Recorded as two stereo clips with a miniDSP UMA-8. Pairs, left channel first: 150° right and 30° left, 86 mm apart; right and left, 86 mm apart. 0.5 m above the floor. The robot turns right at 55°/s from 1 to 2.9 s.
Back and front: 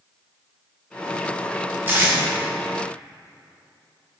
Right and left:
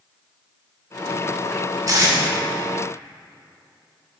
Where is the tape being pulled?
80° left, 1.6 m; by 2.2 s 95° left, 1.6 m.